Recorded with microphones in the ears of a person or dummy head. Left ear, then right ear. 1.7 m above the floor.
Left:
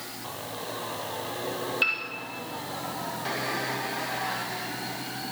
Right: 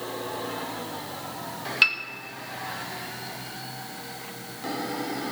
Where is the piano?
30° right (ahead or behind), 1.8 m.